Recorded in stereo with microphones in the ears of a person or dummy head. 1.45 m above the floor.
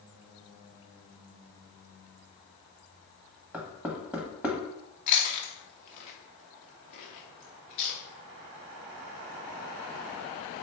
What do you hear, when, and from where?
3.5 s knocking: 10° right (ahead or behind), 0.9 m
5.1 s chewing: 35° left (ahead or behind), 0.6 m